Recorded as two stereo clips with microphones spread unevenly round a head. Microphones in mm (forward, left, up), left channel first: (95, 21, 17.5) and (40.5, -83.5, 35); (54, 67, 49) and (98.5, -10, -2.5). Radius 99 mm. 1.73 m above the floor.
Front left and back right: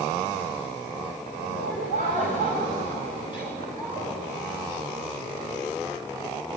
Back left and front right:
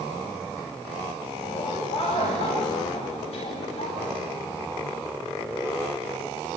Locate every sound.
1.4 s laughter: 115° left, 9.5 m; by 4.1 s 130° left, 12.5 m